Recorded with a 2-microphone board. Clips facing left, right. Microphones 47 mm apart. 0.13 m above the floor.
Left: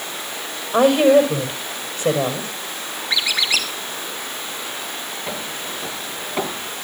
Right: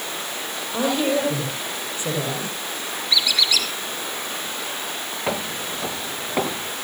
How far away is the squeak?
About 2.5 m.